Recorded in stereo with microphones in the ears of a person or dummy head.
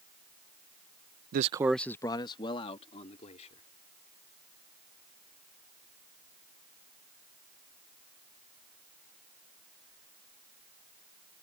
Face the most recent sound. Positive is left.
turn(degrees=45)  # may be behind; listen again after turning